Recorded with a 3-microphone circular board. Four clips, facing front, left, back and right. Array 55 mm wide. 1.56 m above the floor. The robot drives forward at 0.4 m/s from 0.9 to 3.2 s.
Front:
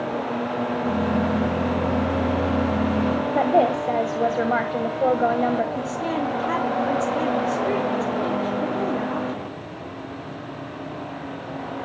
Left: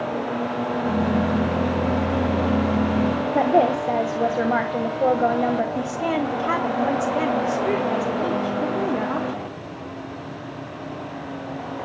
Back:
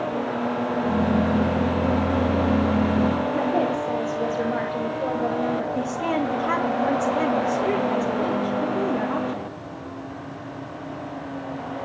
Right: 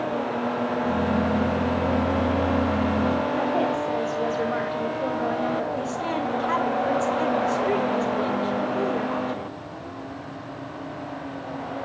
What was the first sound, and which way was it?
A woman speaking, 50° left.